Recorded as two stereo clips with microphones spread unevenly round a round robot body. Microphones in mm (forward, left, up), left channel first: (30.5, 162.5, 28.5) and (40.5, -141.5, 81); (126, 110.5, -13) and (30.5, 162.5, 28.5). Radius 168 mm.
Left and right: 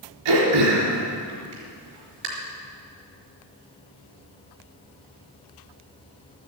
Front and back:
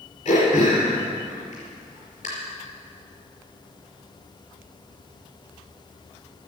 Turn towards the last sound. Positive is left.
turn(degrees=-100)